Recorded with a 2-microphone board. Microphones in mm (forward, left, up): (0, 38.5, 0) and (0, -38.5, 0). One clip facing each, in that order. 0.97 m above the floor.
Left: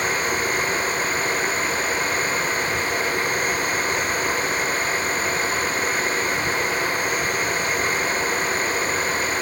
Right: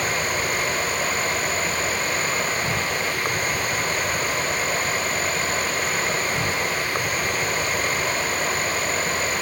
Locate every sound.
0.0 s an insect: 35° right (ahead or behind)